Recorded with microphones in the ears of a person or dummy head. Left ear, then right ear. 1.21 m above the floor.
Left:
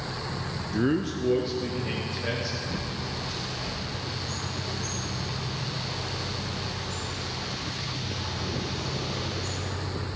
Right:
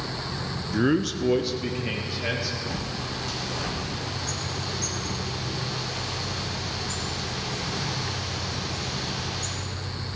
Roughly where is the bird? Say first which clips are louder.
Right 2 dB; right.